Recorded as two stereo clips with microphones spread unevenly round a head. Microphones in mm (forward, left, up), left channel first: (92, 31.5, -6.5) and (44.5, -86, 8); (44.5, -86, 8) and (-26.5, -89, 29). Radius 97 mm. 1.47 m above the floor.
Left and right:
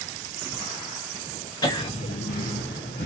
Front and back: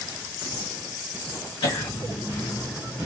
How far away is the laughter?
About 0.7 m.